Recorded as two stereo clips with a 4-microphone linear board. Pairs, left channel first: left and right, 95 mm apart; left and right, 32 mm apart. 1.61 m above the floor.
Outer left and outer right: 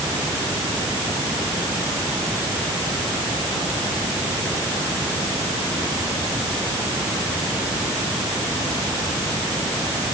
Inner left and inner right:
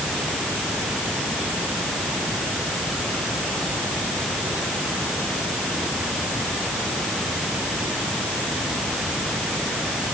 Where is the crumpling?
No crumpling in this recording.